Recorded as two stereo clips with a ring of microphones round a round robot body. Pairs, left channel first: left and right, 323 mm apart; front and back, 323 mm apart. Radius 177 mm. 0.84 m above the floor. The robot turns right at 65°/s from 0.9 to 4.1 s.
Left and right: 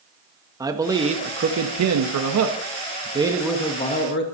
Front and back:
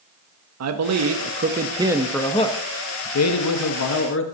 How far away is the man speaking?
About 1.4 m.